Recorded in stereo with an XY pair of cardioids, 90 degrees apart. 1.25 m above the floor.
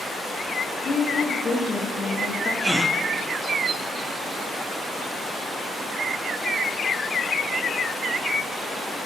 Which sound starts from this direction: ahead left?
A woman speaking, at 0.8 s.